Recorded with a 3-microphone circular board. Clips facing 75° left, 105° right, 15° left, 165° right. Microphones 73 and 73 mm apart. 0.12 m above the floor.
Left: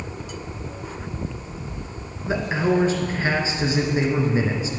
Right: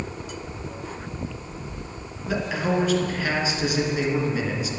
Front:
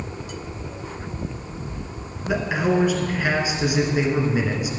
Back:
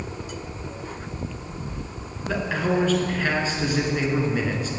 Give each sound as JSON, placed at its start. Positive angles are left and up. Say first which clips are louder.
{"t": 2.3, "sound": "a man speaking", "louder": "left 3 dB, front 3 dB", "azimuth_deg": 80, "distance_m": 1.3}